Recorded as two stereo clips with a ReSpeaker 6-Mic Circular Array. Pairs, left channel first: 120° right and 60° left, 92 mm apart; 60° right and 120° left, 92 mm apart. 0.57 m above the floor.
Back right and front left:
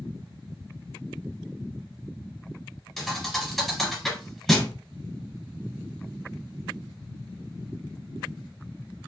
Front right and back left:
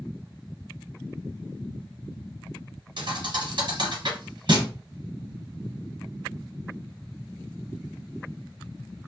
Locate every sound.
3.0 s a thud: 150° left, 1.5 m